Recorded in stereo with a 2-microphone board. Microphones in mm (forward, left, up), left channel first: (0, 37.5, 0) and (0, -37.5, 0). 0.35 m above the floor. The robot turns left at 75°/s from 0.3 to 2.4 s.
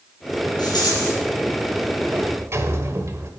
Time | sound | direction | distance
0.6 | a rattle | 105° left | 5 m
2.1 | a sliding door | 35° right (ahead or behind) | 1.1 m